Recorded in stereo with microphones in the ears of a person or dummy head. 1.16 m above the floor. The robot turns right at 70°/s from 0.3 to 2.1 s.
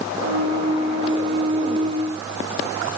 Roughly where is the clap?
I don't hear a clap.